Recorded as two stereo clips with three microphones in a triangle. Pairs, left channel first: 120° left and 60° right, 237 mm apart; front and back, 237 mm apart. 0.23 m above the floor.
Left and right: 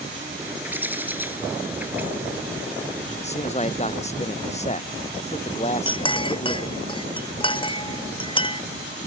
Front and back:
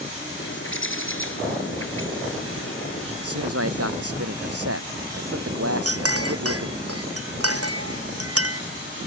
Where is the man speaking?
Straight behind.